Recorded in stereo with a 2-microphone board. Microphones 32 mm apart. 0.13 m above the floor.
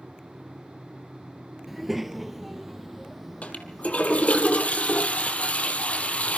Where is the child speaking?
5° right (ahead or behind), 1.2 m; by 4.4 s centre (ahead or behind), 4 m.